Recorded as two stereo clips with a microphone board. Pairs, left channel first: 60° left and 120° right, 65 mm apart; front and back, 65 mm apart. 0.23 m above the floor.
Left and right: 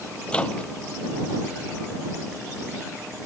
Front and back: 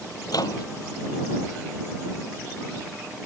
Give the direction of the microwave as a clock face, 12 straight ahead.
12 o'clock.